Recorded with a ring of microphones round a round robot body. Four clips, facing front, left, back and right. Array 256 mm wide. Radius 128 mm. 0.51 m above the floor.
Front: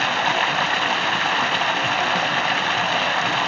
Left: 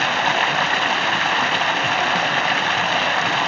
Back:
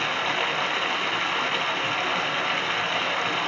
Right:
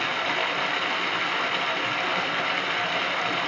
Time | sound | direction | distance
0.0 | running water | 60° left | 1.4 m